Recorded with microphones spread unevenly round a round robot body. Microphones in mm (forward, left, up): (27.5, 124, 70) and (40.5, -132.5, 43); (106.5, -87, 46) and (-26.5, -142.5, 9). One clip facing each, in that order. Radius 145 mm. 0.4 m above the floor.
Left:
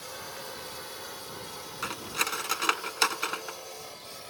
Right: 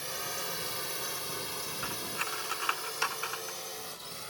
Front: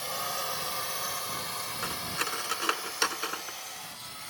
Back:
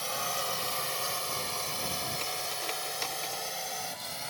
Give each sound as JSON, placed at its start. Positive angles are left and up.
{"t": 0.0, "sound": "a drone", "azimuth_deg": -75}
{"t": 1.8, "sound": "cutlery clinking", "azimuth_deg": 60}